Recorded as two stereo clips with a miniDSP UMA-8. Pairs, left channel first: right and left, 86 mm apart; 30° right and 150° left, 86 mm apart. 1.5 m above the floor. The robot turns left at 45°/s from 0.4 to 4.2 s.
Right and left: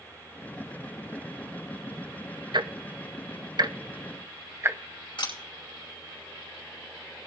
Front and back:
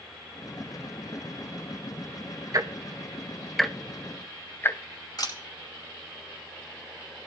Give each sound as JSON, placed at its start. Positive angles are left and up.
{"t": 2.5, "sound": "ticking", "azimuth_deg": 105, "distance_m": 0.7}
{"t": 5.2, "sound": "a camera shutter", "azimuth_deg": -70, "distance_m": 5.0}